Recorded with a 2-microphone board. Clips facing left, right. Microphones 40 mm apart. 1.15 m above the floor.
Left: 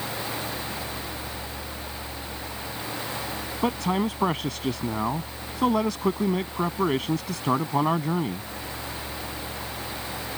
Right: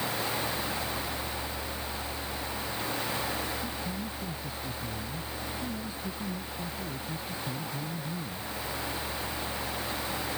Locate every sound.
3.6 s a man speaking: 85° left